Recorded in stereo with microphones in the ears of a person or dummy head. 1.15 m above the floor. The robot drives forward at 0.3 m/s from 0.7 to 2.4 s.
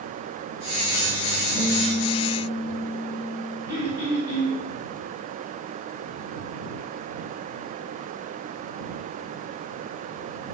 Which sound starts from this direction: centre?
A guitar, at 1.5 s.